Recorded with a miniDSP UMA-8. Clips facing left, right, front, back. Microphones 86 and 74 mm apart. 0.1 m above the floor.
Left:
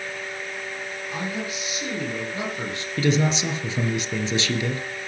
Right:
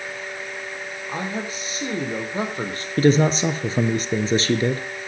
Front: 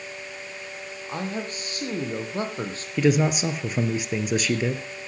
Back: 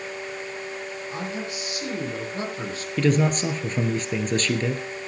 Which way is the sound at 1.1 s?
40° right.